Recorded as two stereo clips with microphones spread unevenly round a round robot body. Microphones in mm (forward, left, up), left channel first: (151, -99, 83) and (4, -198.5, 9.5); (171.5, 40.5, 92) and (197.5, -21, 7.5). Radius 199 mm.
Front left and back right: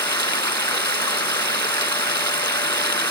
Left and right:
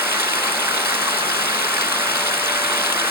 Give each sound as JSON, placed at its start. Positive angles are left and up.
{"t": 0.0, "sound": "running water", "azimuth_deg": -35}